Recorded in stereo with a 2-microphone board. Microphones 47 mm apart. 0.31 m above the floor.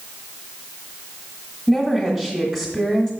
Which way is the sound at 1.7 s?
Centre (ahead or behind).